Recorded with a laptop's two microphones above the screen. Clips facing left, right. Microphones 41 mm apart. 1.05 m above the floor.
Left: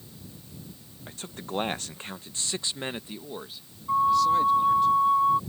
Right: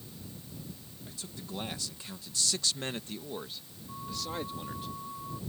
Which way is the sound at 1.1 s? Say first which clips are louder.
Left 7 dB; 50° left (ahead or behind).